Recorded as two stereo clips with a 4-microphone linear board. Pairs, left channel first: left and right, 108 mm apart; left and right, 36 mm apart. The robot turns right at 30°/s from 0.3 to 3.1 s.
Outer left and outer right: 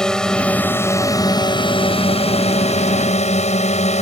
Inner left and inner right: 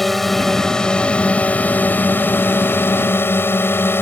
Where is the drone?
5° left; by 4.0 s 90° left.